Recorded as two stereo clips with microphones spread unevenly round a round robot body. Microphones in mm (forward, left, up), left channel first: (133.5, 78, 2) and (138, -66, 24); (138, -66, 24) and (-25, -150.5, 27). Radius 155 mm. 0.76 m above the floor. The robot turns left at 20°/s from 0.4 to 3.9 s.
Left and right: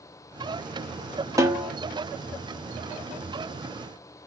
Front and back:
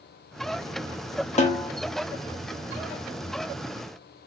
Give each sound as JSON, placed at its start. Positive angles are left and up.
{"t": 1.4, "sound": "a snare drum", "azimuth_deg": -15, "distance_m": 1.0}